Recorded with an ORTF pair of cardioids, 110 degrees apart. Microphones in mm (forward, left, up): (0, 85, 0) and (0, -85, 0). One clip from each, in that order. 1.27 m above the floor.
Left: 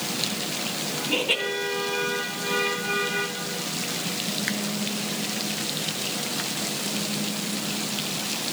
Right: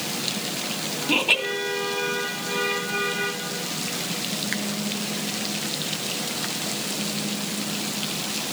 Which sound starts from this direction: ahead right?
Laughter, at 1.1 s.